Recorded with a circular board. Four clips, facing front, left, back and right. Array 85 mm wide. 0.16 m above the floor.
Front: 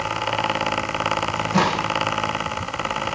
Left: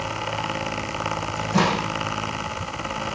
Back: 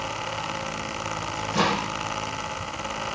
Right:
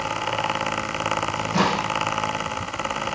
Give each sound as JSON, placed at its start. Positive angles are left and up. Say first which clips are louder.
{"t": 1.4, "sound": "a microwave", "louder": "left 2 dB, front 1 dB", "azimuth_deg": 0, "distance_m": 7.5}